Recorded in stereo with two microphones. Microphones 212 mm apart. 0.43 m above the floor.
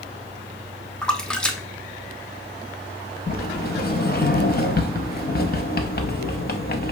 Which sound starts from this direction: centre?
A splash, at 1.0 s.